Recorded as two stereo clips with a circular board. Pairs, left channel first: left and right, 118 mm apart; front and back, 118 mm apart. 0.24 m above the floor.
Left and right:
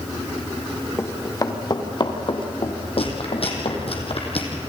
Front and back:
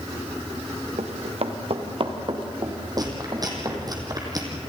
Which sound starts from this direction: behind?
Running footsteps, at 1.0 s.